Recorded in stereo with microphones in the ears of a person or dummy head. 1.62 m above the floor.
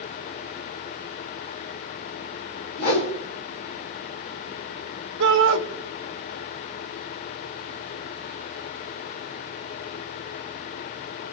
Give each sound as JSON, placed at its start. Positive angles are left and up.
{"t": 2.8, "sound": "a whoosh", "side_deg": 50, "distance_m": 3.5}
{"t": 5.2, "sound": "a shout", "side_deg": -65, "distance_m": 2.5}